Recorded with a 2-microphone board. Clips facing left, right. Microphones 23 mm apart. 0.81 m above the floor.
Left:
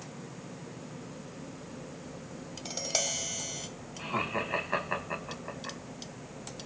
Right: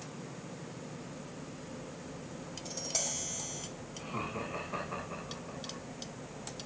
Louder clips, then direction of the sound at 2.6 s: Left 5 dB; 40° left (ahead or behind).